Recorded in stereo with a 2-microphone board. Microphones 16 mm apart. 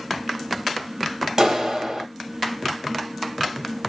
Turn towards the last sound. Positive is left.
turn(degrees=-50)  # may be behind; listen again after turning